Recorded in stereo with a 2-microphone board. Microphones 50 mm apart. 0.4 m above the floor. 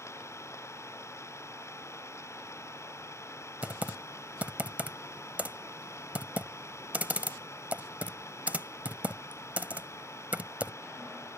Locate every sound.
0.0 s an engine running: 65° left (ahead or behind)
3.6 s typing on a keyboard: 30° right (ahead or behind)